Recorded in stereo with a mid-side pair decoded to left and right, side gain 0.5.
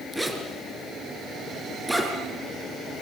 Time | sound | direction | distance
0.1 | a zipper | 10° right | 4.5 m